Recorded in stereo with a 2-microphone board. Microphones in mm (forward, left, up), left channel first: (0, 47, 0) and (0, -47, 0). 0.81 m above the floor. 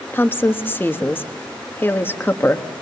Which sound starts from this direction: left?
A woman speaking, at 0.1 s.